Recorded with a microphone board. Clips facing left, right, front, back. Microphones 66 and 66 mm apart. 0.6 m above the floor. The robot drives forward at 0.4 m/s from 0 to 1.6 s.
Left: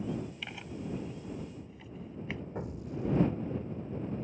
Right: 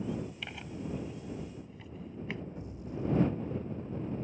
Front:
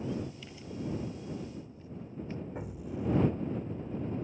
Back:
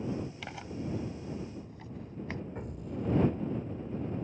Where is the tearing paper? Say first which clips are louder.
Even, back 1 dB; straight behind.